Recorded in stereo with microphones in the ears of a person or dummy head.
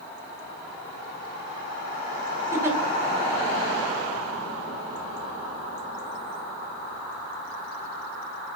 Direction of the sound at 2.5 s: 10° right (ahead or behind).